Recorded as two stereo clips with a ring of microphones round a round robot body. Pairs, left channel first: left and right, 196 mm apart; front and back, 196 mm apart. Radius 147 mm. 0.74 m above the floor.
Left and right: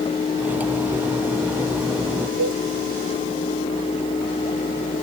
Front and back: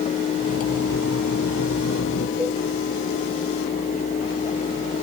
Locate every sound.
0.4 s cutlery clinking: 10° right
2.4 s a cowbell: 95° right